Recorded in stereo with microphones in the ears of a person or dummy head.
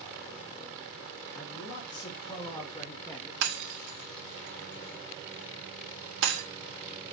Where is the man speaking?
45° left (ahead or behind), 3 m; by 3.3 s 10° left (ahead or behind), 1.5 m.